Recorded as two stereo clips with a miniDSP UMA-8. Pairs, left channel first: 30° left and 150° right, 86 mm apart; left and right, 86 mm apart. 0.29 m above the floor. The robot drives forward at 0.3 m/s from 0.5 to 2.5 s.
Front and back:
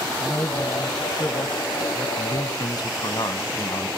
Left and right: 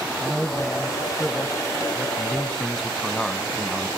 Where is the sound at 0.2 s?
5° right, 1.9 m.